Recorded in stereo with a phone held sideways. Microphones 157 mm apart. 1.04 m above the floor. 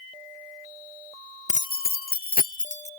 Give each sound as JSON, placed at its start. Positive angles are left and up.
{"t": 1.5, "sound": "keys jangling", "side_deg": 50}